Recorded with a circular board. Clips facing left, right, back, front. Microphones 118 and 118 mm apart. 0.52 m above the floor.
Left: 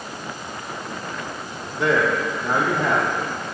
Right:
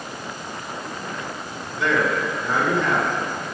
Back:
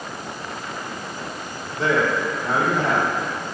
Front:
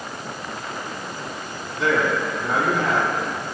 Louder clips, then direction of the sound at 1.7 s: Left 2 dB, even; 135° left.